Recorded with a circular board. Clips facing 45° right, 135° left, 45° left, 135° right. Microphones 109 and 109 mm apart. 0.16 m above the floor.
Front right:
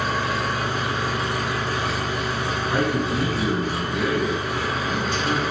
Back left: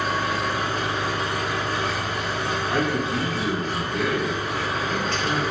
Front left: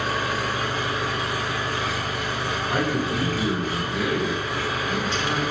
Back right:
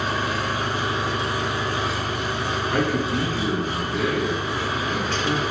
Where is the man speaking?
10° left, 1.2 m.